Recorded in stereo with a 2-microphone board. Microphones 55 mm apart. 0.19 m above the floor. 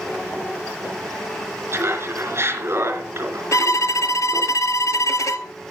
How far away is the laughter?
About 3 m.